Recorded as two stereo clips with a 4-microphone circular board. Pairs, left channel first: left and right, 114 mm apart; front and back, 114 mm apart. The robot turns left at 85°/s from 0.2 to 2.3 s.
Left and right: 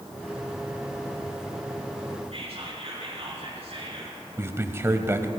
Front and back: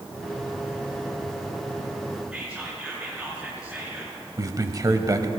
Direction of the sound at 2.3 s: 100° right.